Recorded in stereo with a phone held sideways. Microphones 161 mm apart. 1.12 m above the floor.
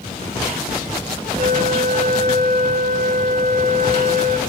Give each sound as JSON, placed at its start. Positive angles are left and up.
{"t": 1.4, "sound": "a flute", "side_deg": -50, "distance_m": 2.0}